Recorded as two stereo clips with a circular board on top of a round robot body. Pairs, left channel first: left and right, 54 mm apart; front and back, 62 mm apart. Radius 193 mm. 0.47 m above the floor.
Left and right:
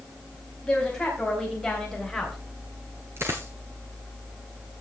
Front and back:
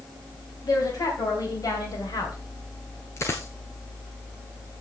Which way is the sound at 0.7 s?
15° left.